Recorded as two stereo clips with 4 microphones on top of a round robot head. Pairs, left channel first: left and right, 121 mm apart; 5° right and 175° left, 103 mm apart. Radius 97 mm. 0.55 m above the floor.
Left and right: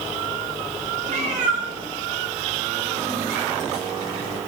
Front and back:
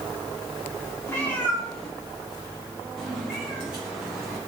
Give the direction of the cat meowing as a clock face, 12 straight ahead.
2 o'clock.